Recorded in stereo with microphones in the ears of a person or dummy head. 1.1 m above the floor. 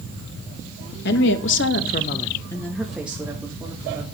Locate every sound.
1.1 s a woman speaking: 60° left (ahead or behind), 1.8 m; by 4.0 s 15° right (ahead or behind), 3.5 m